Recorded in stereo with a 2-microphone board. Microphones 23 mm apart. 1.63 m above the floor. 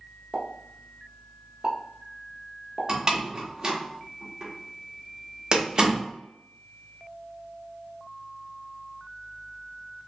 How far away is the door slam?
About 0.9 m.